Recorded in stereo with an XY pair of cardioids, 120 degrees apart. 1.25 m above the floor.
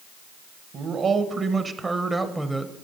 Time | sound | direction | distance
0.7 | a man speaking | 45° right | 1.3 m